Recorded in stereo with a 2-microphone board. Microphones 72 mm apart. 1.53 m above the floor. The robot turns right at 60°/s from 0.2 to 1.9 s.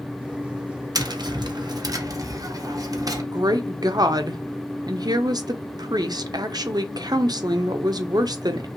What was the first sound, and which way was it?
Tapping, 115° right.